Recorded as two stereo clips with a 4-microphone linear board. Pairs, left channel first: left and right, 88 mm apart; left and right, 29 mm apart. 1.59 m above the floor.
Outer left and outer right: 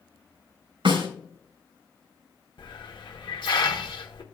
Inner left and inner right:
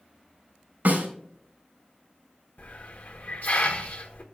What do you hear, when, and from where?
0.8 s a snare drum: 70° right (ahead or behind), 3.5 m
2.6 s a hiss: 70° left (ahead or behind), 1.0 m